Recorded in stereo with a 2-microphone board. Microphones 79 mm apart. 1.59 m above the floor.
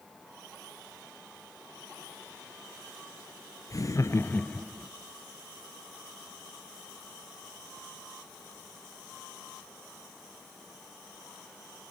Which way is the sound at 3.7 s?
45° left (ahead or behind).